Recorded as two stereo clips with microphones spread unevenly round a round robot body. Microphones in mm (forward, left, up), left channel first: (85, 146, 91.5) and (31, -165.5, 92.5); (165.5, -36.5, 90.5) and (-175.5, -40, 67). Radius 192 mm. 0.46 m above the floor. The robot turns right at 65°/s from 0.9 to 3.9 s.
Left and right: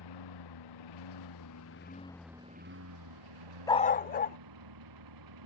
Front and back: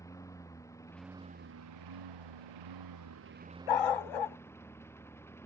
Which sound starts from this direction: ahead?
A dog barking, at 3.7 s.